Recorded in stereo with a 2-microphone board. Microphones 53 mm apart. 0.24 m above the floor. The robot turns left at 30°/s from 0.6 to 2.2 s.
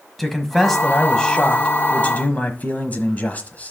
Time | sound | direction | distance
0.2 | a man speaking | 175° left | 1.3 m